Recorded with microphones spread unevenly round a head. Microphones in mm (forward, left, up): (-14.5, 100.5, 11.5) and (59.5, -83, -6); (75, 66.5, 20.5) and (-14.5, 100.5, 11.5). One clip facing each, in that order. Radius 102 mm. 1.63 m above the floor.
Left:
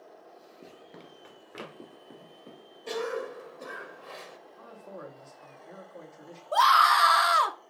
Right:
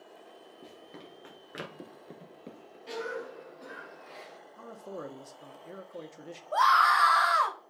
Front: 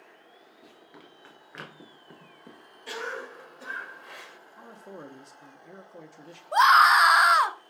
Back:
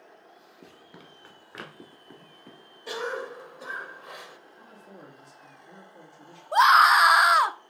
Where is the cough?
85° left, 1.3 m.